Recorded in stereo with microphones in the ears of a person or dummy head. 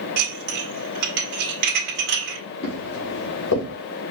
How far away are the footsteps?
About 2 m.